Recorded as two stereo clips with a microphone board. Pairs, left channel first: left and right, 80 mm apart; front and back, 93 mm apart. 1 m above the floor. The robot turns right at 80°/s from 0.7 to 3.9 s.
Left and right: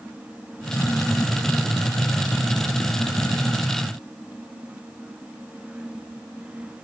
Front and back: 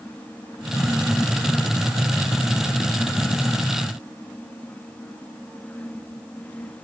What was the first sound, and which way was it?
Only background noise.